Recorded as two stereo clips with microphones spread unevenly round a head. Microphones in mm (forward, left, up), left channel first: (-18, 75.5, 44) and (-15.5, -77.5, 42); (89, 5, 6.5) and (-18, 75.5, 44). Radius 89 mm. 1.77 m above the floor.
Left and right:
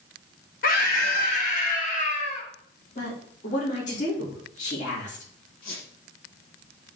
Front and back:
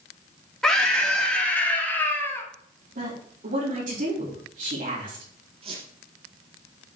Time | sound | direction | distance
0.6 | a scream | 55° left | 3.5 m
3.0 | a woman speaking | 130° left | 5 m
5.6 | a squeak | 115° left | 5 m